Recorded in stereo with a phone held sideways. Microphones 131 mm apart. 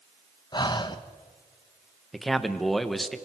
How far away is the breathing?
About 0.9 m.